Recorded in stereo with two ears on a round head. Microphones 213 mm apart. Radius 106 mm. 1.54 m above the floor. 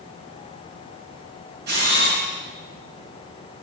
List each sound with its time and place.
1.7 s a camera shutter: 45° right (ahead or behind), 8.5 m